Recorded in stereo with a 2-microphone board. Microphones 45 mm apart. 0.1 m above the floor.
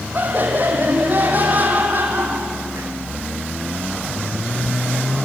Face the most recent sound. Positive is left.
turn(degrees=-40)  # may be behind; listen again after turning